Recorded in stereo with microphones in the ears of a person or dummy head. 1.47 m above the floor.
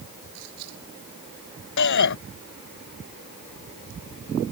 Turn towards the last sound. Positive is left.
turn(degrees=65)  # may be behind; listen again after turning